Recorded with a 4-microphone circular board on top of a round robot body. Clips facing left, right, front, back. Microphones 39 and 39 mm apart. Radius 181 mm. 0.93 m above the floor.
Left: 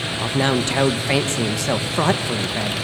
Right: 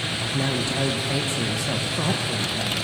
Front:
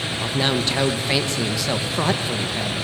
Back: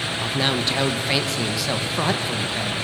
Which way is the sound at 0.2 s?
90° left.